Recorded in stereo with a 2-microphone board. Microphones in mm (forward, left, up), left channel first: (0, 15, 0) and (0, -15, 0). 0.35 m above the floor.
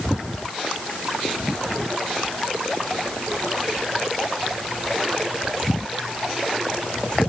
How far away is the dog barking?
I don't hear a dog barking.